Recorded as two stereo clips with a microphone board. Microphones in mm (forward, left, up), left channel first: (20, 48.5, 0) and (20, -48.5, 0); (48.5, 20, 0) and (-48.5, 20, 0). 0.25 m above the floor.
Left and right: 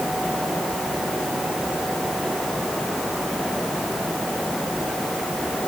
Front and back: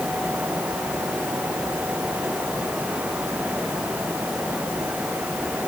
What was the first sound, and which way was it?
Only background noise.